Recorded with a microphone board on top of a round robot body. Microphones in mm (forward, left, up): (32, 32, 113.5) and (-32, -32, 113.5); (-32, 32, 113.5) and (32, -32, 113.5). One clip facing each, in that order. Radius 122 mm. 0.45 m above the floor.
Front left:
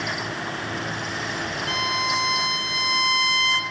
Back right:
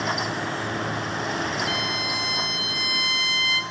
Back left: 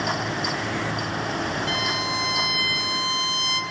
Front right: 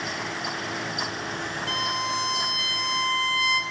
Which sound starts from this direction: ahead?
A violin, at 1.7 s.